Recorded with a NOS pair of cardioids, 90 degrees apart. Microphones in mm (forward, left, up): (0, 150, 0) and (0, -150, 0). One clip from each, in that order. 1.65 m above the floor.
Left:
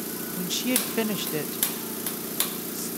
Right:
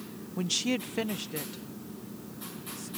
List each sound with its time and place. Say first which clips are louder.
0.4 s a woman speaking: left 2 dB; 15° right; by 2.9 s 60° left